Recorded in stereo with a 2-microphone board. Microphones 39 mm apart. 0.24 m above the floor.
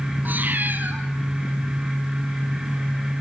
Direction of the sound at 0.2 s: 50° right (ahead or behind).